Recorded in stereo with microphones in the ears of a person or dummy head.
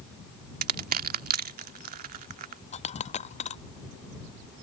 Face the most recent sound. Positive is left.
turn(degrees=35)  # may be behind; listen again after turning